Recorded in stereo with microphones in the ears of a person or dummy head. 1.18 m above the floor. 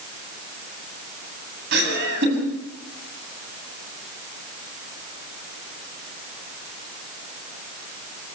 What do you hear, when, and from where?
1.7 s laughter: 65° right (ahead or behind), 8.5 m